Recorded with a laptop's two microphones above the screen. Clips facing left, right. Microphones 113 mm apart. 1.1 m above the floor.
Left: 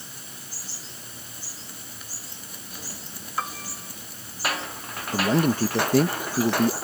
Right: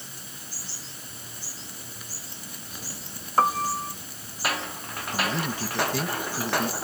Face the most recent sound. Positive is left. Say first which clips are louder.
# left 8 dB
turn(degrees=45)  # may be behind; listen again after turning